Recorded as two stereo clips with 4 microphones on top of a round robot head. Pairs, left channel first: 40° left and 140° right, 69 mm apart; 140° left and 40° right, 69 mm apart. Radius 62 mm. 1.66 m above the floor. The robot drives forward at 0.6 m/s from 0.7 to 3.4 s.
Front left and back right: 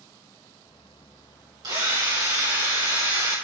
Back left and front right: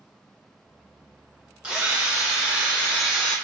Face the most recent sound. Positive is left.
turn(degrees=-130)